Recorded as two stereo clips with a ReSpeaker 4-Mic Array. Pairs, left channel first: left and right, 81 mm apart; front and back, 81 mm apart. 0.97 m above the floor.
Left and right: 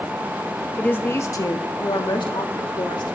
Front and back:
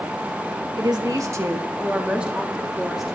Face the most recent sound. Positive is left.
turn(degrees=90)